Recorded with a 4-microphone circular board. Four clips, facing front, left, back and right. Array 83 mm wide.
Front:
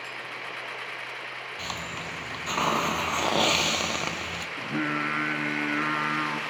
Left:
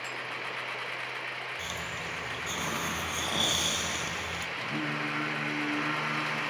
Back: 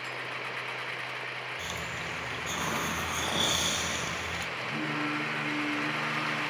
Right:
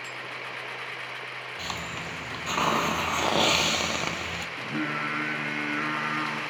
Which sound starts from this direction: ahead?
Singing, at 4.6 s.